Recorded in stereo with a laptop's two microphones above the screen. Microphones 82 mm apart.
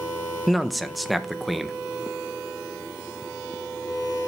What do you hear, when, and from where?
0.5 s a man speaking: centre (ahead or behind), 0.5 m